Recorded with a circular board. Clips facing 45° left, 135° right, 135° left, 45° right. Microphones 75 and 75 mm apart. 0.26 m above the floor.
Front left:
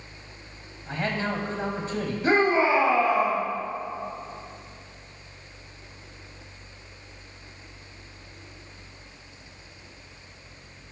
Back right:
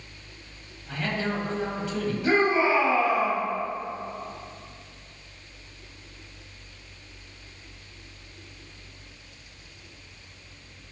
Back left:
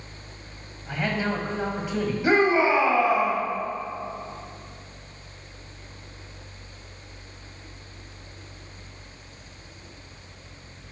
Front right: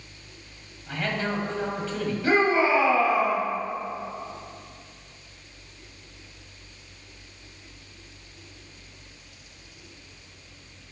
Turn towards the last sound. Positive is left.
turn(degrees=75)